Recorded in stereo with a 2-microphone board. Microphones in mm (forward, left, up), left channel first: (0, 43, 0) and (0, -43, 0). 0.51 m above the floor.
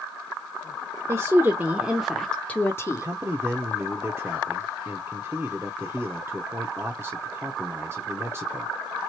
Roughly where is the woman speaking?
Right.